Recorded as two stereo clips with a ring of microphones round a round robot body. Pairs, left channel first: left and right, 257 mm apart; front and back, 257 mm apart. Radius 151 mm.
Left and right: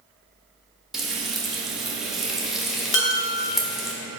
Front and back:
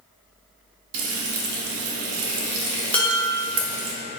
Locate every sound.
0.9 s frying: straight behind, 0.8 m
2.9 s dishes clattering: 85° left, 0.9 m